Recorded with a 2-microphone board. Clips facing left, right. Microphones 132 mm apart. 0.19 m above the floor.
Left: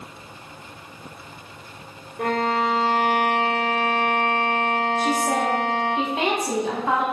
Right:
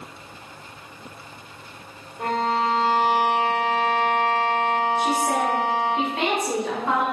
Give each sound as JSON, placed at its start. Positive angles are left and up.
{"t": 2.2, "sound": "a violin", "side_deg": 70, "distance_m": 0.9}
{"t": 5.0, "sound": "a woman speaking", "side_deg": 20, "distance_m": 1.1}